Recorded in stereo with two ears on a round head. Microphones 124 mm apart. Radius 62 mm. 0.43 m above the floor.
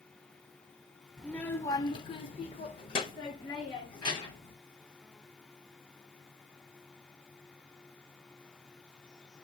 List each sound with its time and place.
1.2 s a child speaking: 5° left (ahead or behind), 0.6 m; by 4.5 s 30° left (ahead or behind), 1.8 m